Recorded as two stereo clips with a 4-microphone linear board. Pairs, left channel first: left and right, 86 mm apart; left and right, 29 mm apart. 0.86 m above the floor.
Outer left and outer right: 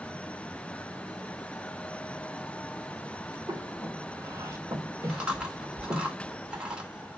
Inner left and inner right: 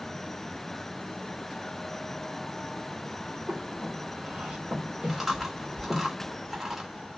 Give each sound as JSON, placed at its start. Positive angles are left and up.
{"t": 3.5, "sound": "breathing", "side_deg": -40, "distance_m": 3.0}
{"t": 5.1, "sound": "chewing", "side_deg": -15, "distance_m": 2.5}